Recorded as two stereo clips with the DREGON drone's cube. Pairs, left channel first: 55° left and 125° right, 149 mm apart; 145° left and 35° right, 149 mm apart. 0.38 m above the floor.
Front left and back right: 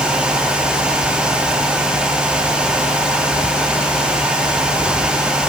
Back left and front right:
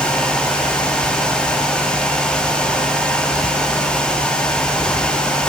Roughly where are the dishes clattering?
No dishes clattering in this recording.